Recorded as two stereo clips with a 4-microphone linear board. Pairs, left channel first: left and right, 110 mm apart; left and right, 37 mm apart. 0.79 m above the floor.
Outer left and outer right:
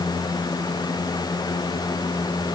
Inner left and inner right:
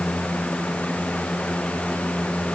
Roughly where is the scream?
I don't hear a scream.